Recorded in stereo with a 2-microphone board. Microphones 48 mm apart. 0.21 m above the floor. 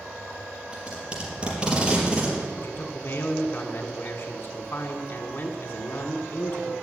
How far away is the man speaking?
About 1.5 m.